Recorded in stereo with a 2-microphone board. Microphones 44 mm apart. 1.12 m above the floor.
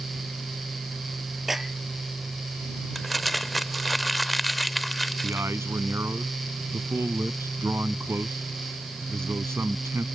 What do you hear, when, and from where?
1.5 s a clap: 5° right (ahead or behind)
3.0 s crumpling: centre (ahead or behind)
5.2 s a man speaking: 90° right